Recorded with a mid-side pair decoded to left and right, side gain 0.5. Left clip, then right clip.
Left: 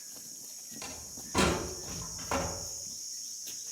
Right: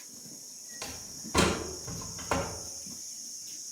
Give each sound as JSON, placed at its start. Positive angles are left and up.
{"t": 0.8, "sound": "a door slam", "azimuth_deg": -35, "distance_m": 4.5}